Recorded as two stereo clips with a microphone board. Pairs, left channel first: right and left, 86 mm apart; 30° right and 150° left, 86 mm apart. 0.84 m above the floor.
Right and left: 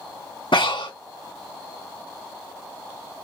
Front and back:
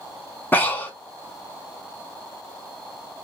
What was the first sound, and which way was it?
Breathing, 95° right.